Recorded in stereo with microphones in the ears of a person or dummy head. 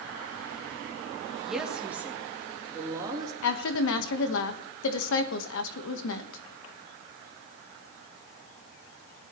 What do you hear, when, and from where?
1.4 s a woman speaking: centre (ahead or behind), 2.5 m; by 3.3 s 20° right (ahead or behind), 3.5 m
3.4 s a woman speaking: 70° left (ahead or behind), 1.2 m